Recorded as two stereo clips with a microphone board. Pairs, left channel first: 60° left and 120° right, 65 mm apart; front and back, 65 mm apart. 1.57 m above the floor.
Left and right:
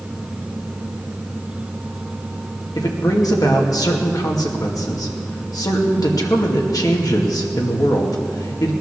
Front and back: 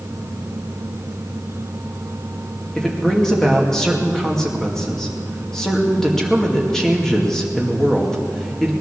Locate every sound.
2.8 s a man speaking: 85° left, 2.5 m